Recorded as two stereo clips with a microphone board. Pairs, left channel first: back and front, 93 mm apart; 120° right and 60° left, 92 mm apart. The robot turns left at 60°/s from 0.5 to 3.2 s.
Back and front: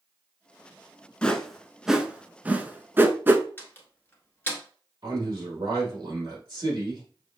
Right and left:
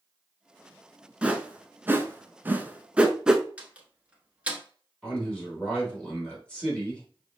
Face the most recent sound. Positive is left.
turn(degrees=-40)